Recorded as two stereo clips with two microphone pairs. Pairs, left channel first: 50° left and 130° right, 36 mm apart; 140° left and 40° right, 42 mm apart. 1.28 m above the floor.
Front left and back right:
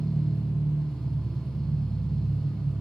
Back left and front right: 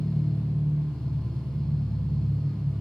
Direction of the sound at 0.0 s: 95° right.